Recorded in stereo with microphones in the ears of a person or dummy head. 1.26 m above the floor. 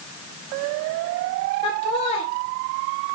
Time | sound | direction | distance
1.6 | laughter | 35° left (ahead or behind) | 0.7 m